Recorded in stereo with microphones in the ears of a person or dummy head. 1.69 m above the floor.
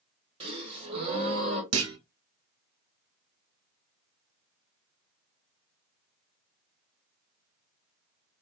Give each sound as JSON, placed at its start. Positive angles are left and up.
{"t": 0.4, "sound": "a gasp", "side_deg": -30, "distance_m": 1.5}
{"t": 1.7, "sound": "a clunk", "side_deg": -80, "distance_m": 0.8}